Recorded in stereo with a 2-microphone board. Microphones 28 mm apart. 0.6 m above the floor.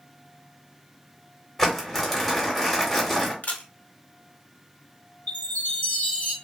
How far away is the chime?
About 1.0 m.